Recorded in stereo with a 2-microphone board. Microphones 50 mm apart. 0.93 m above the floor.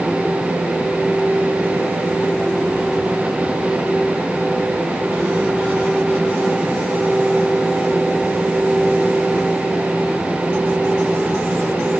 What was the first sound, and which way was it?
Only background noise.